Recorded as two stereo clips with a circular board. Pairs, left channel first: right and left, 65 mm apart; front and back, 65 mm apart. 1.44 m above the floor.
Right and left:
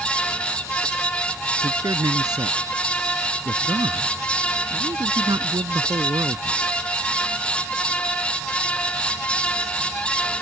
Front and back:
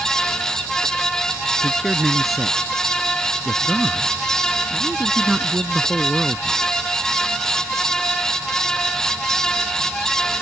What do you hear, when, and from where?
1.6 s a man speaking: 90° left; by 6.6 s 95° left